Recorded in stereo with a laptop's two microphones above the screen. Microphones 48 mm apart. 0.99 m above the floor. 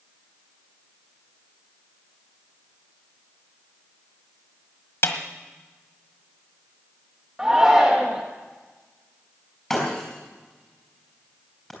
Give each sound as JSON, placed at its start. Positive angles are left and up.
{"t": 5.0, "sound": "a snare drum", "side_deg": 60, "distance_m": 1.4}
{"t": 7.4, "sound": "a shout", "side_deg": -15, "distance_m": 1.6}
{"t": 9.7, "sound": "breaking glass", "side_deg": 5, "distance_m": 4.5}